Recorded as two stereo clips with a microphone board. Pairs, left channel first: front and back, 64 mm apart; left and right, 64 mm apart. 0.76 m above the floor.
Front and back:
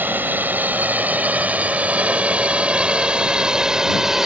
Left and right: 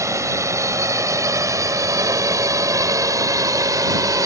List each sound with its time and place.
0.0 s a drone: 120° right; by 4.2 s 100° right